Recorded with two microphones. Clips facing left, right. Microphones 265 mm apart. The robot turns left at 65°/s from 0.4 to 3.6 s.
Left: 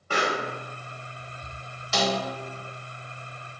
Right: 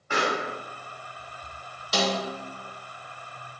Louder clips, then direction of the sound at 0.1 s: Even; 40° left (ahead or behind).